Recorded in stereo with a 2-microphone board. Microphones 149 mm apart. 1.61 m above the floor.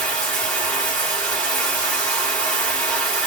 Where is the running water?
10° left (ahead or behind), 1.1 m.